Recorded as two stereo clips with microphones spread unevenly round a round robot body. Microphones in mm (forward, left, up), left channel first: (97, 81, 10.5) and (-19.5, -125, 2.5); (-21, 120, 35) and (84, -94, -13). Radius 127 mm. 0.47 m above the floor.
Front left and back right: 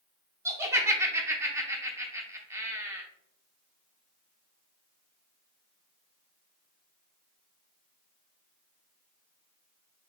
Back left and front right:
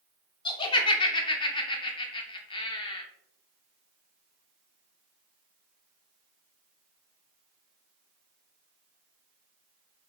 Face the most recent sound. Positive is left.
turn(degrees=-175)